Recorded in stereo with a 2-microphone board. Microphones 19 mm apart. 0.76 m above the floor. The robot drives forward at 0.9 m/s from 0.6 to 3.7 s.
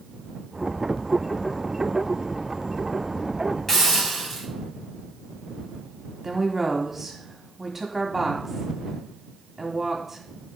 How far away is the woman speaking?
About 1.5 m.